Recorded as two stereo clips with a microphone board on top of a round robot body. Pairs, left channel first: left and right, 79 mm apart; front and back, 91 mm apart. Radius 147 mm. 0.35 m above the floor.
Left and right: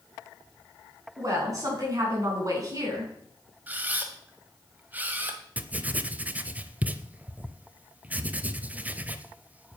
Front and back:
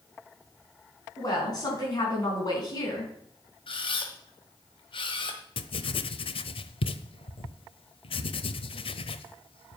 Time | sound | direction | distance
1.2 | a woman speaking | 45° right | 5.5 m
3.7 | a camera shutter | 20° right | 1.7 m
5.6 | writing | 15° right | 0.7 m